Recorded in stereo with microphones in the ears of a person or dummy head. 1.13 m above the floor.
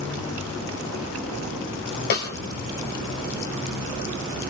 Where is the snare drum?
55° left (ahead or behind), 2.5 m.